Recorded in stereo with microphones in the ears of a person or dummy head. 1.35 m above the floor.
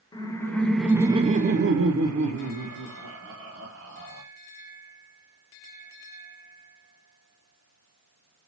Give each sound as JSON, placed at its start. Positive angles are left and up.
{"t": 0.1, "sound": "laughter", "side_deg": 20, "distance_m": 0.8}